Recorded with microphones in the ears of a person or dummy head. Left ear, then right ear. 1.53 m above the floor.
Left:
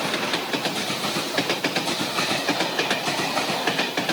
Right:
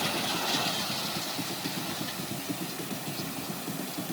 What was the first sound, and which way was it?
Only background noise.